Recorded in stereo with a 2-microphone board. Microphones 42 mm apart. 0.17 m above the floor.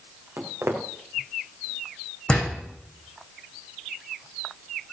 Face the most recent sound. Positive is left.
turn(degrees=25)  # may be behind; listen again after turning